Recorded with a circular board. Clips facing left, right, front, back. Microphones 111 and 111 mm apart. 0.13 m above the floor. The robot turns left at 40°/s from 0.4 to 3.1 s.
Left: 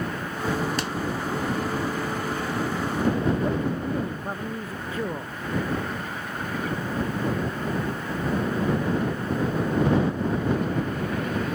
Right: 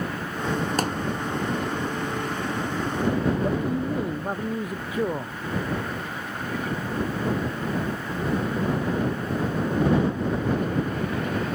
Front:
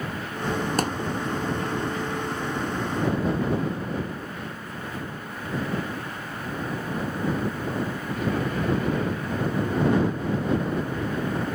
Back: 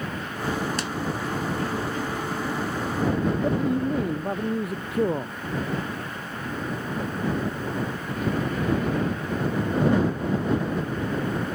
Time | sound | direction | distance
0.8 | a thud | 45° right | ?
3.4 | a man speaking | 165° right | ?